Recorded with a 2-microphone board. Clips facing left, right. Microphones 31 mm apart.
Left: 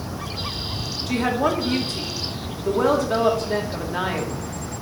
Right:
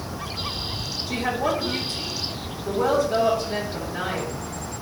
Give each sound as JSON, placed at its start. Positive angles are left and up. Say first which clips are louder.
{"t": 1.1, "sound": "a woman speaking", "louder": "left 3 dB", "side_deg": 85, "distance_m": 2.5}